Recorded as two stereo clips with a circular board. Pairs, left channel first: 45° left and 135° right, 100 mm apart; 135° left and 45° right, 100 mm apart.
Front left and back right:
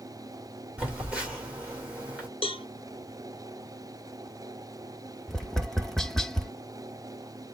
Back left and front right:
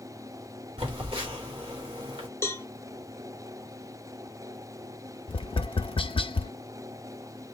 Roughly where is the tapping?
Behind left.